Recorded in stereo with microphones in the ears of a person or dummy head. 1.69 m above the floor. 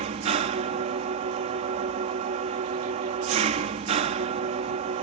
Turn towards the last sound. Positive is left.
turn(degrees=-40)  # may be behind; listen again after turning